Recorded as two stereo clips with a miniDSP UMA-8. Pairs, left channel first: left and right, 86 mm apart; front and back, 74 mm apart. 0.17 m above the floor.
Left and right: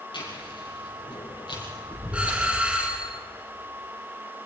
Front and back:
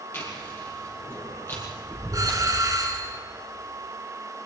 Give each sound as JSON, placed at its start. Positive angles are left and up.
{"t": 0.1, "sound": "chewing", "azimuth_deg": 60, "distance_m": 6.0}
{"t": 2.1, "sound": "a doorbell", "azimuth_deg": -160, "distance_m": 2.5}